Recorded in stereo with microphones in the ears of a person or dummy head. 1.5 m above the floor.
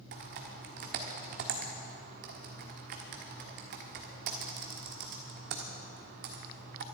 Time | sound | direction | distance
0.1 | typing on a keyboard | 50° right (ahead or behind) | 1.5 m